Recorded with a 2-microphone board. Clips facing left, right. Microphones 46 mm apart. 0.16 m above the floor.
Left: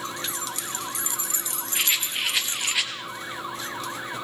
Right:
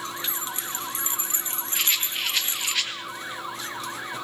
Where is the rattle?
10° left (ahead or behind), 4 m.